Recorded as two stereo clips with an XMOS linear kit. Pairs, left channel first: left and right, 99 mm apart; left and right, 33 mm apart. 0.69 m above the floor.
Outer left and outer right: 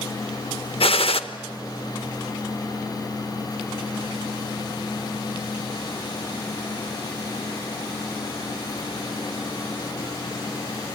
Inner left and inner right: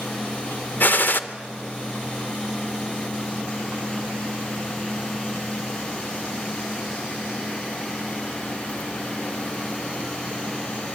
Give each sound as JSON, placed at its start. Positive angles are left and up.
{"t": 0.8, "sound": "a gunshot", "side_deg": 70, "distance_m": 0.8}